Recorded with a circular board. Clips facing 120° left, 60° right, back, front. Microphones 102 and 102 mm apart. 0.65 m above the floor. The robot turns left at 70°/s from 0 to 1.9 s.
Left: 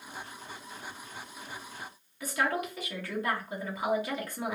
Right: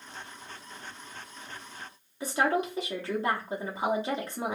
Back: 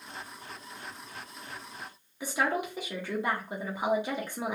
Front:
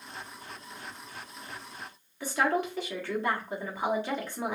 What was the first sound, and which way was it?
A woman speaking, 110° right.